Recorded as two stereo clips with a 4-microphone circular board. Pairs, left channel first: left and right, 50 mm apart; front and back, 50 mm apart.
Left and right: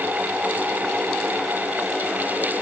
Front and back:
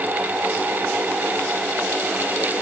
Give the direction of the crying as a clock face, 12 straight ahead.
No crying in this recording.